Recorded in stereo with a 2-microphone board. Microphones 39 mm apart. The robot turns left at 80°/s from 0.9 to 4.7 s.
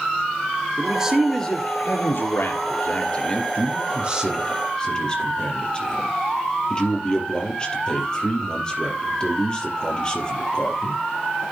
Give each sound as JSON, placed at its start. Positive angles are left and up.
{"t": 0.8, "sound": "a man speaking", "azimuth_deg": -155, "distance_m": 3.5}
{"t": 3.5, "sound": "a man speaking", "azimuth_deg": -110, "distance_m": 4.0}